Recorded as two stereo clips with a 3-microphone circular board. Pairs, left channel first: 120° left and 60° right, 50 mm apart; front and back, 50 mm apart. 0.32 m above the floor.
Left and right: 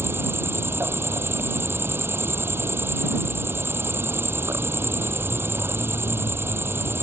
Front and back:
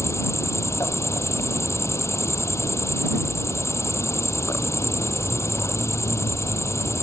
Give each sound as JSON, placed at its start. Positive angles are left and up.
{"t": 0.0, "sound": "an insect", "azimuth_deg": -20}